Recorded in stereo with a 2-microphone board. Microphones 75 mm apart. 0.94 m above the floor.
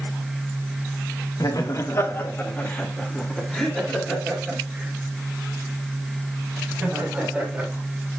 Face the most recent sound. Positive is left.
turn(degrees=-15)  # may be behind; listen again after turning